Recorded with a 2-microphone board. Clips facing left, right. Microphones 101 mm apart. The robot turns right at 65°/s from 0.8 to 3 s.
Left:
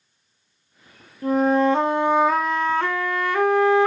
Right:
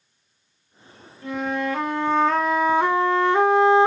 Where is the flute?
100° left, 0.6 m; by 3.9 s 145° right, 0.6 m.